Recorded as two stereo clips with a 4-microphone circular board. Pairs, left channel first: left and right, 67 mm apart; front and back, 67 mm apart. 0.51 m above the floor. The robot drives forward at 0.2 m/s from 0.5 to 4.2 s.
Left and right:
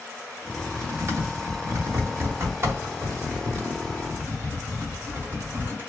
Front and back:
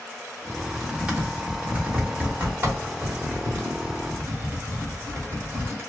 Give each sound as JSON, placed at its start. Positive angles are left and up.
{"t": 0.5, "sound": "typing on a keyboard", "azimuth_deg": -100, "distance_m": 0.9}